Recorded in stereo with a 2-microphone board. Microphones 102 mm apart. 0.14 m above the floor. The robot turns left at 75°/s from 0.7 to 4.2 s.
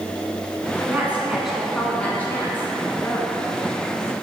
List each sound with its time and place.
0.9 s a woman speaking: 20° right (ahead or behind), 1.2 m; by 3.3 s 15° left (ahead or behind), 1.2 m